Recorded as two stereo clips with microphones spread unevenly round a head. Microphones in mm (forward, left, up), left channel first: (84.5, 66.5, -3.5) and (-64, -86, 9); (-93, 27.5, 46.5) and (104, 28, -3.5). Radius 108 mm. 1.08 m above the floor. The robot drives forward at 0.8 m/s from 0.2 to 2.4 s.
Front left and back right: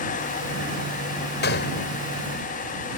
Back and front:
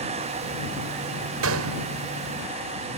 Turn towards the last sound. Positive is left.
turn(degrees=5)